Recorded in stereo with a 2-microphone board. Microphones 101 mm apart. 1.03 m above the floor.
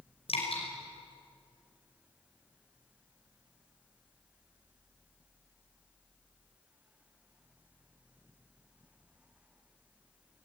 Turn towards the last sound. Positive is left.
turn(degrees=65)  # may be behind; listen again after turning